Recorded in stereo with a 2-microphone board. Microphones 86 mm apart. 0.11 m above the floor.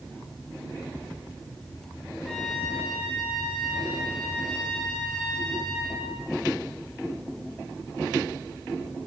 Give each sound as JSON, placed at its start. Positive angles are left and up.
{"t": 2.2, "sound": "a trumpet", "side_deg": 5, "distance_m": 9.5}